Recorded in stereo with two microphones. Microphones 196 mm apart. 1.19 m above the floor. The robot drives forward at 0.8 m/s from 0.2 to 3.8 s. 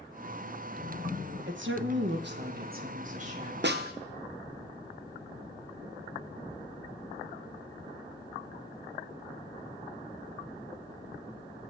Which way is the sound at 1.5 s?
70° right (ahead or behind).